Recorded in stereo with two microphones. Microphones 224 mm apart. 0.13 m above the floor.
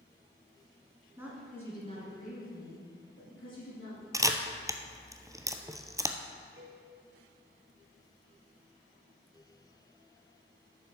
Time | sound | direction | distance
1.2 | a woman speaking | 10° right (ahead or behind) | 1.6 m
4.1 | a camera shutter | 15° right (ahead or behind) | 0.5 m
6.6 | a cowbell | 65° right (ahead or behind) | 2.5 m